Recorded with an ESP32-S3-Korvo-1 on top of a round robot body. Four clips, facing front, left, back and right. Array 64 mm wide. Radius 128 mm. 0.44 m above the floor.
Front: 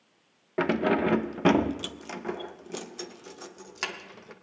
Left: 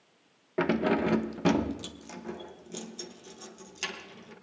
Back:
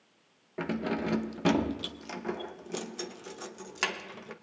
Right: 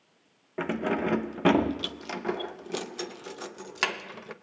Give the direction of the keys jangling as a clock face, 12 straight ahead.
11 o'clock.